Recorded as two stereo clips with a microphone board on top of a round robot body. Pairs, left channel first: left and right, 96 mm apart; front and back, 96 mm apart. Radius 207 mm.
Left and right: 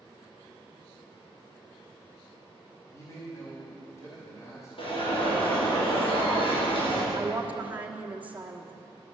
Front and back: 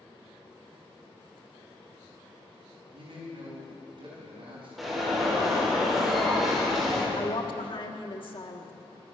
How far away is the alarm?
About 4 m.